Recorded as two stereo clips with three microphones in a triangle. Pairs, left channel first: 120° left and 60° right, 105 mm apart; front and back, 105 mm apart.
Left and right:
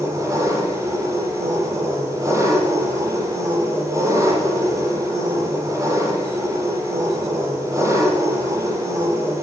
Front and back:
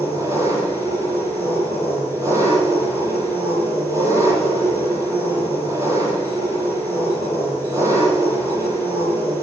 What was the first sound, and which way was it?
An engine running, 125° right.